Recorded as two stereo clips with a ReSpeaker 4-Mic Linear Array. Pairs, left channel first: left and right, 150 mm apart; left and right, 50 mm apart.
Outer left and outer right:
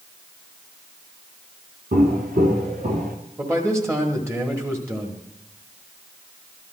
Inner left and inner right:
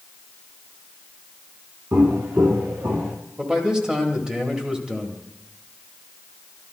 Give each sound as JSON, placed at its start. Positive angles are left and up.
{"t": 1.9, "sound": "footsteps", "side_deg": -75, "distance_m": 2.0}
{"t": 3.4, "sound": "a man speaking", "side_deg": -20, "distance_m": 1.3}